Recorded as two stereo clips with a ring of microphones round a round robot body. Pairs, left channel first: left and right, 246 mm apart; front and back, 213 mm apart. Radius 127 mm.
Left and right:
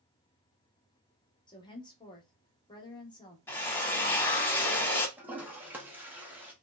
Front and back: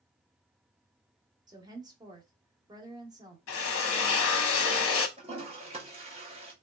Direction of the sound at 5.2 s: 165° right.